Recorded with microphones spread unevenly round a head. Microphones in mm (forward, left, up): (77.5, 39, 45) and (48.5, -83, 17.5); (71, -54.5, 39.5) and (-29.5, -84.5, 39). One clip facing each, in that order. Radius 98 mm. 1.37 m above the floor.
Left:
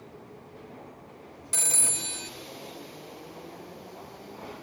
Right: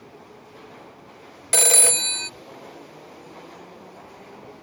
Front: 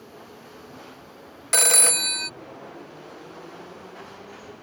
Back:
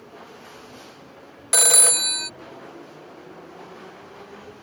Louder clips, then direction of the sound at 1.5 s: Right 14 dB, back 1 dB; 80° right.